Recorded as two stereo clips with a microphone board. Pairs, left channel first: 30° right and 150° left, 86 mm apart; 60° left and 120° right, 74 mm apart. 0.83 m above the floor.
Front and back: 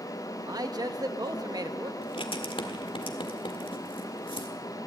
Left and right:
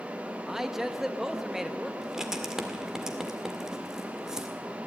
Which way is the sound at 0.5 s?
155° left.